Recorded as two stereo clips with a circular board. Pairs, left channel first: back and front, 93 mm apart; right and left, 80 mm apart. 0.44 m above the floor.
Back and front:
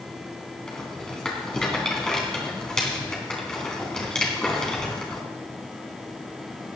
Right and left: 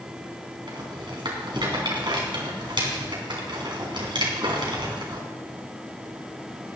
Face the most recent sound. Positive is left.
turn(degrees=95)